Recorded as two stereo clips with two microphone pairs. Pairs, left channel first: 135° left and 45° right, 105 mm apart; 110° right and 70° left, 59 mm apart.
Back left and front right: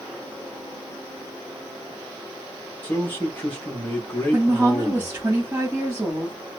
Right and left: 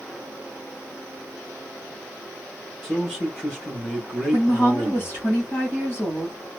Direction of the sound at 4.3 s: 100° right.